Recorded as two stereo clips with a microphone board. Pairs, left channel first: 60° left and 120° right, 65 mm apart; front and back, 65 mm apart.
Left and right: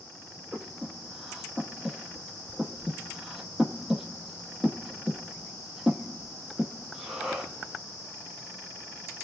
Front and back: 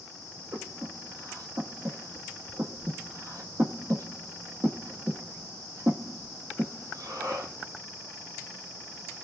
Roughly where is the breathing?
Behind left.